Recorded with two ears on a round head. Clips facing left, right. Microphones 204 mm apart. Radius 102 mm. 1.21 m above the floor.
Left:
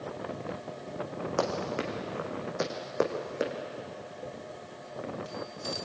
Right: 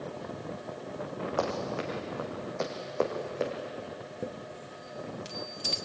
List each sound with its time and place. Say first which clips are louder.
1.4 s running footsteps: left 2 dB; 25° left (ahead or behind), 4.5 m; by 3.5 s 15° left (ahead or behind), 4 m
4.2 s a chime: right 2 dB; 60° right (ahead or behind), 2.5 m